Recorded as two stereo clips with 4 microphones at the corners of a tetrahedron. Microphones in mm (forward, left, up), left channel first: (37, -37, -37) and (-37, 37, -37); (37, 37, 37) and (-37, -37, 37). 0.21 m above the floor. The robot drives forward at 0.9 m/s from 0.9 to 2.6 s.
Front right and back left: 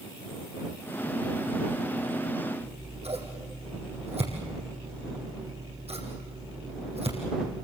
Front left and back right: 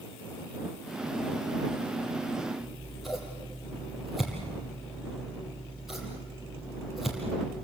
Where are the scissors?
135° left, 4.5 m.